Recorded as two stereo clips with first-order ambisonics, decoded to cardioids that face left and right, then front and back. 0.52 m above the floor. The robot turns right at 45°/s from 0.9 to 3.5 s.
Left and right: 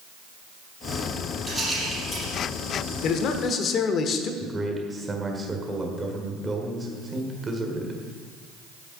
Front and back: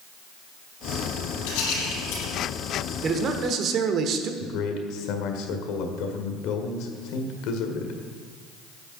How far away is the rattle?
About 5 m.